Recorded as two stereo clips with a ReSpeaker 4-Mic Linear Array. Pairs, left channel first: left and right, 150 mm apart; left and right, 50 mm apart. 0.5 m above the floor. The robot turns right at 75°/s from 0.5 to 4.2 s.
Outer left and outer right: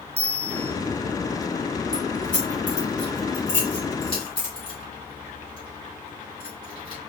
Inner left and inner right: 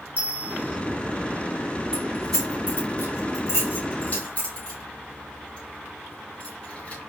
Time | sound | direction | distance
0.2 | a bell | 40° right (ahead or behind) | 0.9 m
1.9 | keys jangling | 20° right (ahead or behind) | 3 m